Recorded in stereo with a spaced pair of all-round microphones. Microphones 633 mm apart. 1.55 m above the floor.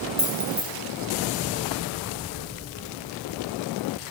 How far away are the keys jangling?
About 1.0 m.